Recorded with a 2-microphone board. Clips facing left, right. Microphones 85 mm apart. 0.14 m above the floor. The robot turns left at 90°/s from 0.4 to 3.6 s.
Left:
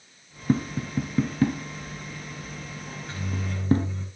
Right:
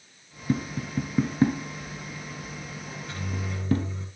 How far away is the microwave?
About 10 m.